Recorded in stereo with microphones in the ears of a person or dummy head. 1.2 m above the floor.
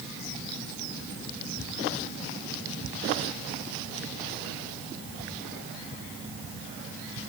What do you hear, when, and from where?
Only background noise.